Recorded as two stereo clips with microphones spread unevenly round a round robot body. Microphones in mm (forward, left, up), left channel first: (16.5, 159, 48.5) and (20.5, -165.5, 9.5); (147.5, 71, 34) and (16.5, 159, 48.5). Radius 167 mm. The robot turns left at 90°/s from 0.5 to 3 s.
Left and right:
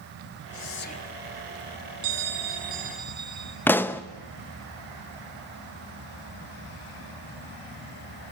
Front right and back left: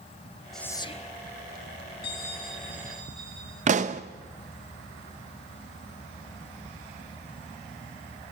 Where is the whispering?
55° left, 0.9 m; by 1.1 s straight ahead, 0.9 m.